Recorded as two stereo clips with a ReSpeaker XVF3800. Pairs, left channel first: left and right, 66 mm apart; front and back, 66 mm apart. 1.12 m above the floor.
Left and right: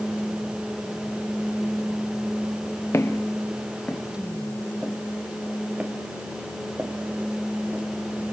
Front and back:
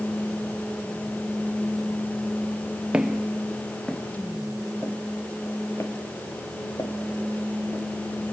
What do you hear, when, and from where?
2.9 s footsteps: 110° left, 1.5 m; by 7.8 s 35° right, 3 m